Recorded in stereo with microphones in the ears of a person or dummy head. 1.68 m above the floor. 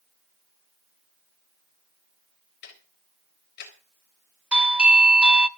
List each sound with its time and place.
2.6 s ticking: 55° left (ahead or behind), 4.5 m
4.5 s a doorbell: 5° right (ahead or behind), 0.8 m